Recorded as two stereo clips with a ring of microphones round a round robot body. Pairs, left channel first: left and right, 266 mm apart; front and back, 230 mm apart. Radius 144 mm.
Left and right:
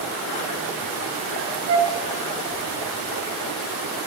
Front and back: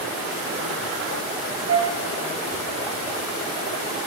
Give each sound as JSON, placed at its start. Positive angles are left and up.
{"t": 1.7, "sound": "a flute", "azimuth_deg": -135, "distance_m": 0.7}